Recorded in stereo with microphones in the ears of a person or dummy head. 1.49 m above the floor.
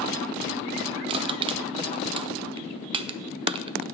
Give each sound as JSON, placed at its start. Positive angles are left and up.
{"t": 1.1, "sound": "crushing", "side_deg": -30, "distance_m": 0.7}